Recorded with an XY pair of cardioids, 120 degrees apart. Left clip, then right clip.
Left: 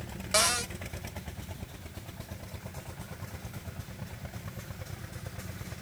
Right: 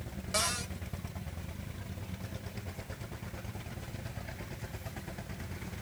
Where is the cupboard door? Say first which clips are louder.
Left 6 dB; 40° left, 0.7 m.